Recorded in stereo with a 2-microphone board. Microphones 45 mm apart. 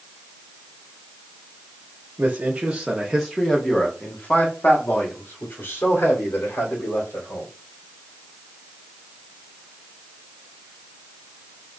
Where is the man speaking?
30° right (ahead or behind), 1.1 m; by 7.5 s 70° left (ahead or behind), 2.5 m.